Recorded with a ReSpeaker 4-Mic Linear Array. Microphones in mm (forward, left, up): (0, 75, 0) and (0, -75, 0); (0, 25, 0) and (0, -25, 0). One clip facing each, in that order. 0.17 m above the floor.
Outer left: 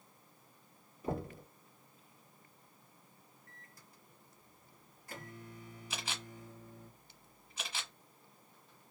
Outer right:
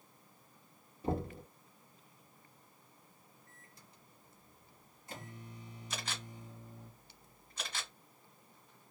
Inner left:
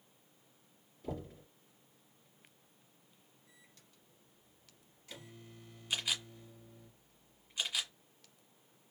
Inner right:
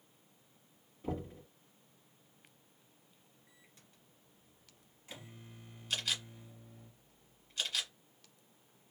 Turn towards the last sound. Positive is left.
turn(degrees=5)  # may be behind; listen again after turning